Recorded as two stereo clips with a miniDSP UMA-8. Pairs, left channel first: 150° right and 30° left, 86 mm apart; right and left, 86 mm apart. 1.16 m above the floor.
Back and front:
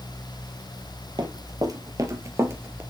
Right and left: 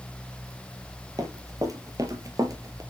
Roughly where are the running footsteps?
Ahead left.